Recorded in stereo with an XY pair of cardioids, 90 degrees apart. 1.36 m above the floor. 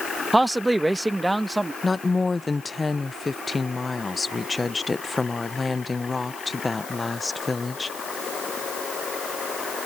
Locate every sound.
0.3 s a man speaking: 15° right
1.8 s a woman speaking: 25° left